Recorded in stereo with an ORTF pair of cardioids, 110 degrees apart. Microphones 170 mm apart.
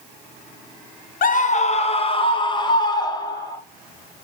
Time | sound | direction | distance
1.2 | a scream | 55° left | 0.7 m